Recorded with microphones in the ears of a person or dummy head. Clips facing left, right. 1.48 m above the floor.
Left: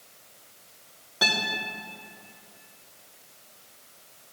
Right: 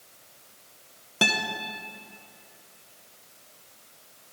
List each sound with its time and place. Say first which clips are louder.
1.2 s a guitar: right 2 dB; 40° right (ahead or behind), 0.7 m